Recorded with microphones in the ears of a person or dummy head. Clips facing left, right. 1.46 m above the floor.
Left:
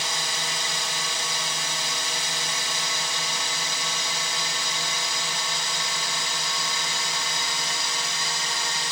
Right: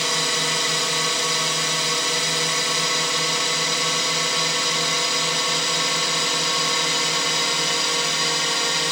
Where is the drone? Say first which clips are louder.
Right 7 dB; 60° right (ahead or behind).